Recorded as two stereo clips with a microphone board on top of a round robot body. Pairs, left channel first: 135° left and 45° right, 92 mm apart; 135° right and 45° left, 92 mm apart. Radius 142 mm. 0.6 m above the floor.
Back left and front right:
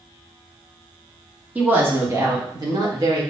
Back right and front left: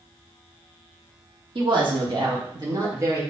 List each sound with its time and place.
1.6 s a woman speaking: 30° left, 1.4 m; by 3.2 s 10° right, 2.0 m